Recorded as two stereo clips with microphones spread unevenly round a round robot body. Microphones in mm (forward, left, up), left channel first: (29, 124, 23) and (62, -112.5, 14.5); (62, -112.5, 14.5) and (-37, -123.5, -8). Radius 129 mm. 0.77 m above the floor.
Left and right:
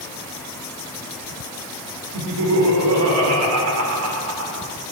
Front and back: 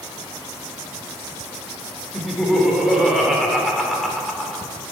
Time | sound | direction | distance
2.1 | laughter | 85° right | 3 m